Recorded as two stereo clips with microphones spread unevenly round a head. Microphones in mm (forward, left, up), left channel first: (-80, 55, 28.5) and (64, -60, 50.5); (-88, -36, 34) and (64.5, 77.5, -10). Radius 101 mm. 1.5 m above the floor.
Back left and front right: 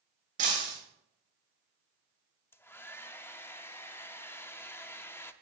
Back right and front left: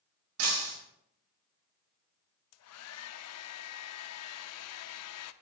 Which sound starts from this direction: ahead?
Breaking glass, at 0.4 s.